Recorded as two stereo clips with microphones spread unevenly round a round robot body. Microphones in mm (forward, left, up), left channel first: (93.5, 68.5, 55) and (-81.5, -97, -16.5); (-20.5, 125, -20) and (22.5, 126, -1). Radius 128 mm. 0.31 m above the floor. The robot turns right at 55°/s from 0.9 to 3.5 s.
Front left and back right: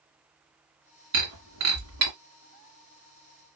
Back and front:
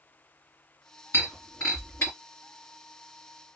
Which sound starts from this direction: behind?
Breaking glass, at 1.1 s.